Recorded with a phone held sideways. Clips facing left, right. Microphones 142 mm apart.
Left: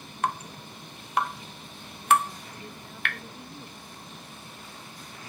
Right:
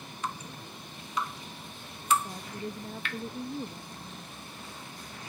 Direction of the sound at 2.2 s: 40° right (ahead or behind).